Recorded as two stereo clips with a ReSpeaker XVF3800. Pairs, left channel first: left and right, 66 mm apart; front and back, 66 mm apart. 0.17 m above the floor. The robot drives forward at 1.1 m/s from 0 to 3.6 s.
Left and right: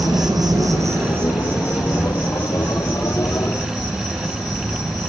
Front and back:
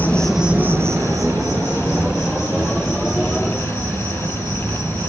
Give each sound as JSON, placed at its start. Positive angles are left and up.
{"t": 0.0, "sound": "an insect", "azimuth_deg": -65, "distance_m": 0.8}